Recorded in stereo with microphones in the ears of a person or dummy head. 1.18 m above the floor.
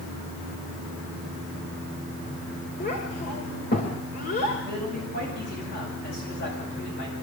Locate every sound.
2.8 s a child speaking: 40° left (ahead or behind), 2.5 m
4.7 s a man speaking: 50° left (ahead or behind), 8.5 m